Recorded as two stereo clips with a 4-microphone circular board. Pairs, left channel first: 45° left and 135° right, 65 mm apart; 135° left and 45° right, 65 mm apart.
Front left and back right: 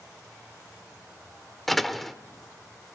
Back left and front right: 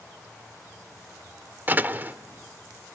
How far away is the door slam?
About 0.9 m.